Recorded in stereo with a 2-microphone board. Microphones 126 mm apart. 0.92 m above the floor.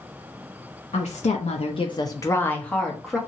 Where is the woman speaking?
60° left (ahead or behind), 0.6 m; by 3.2 s centre (ahead or behind), 1.0 m.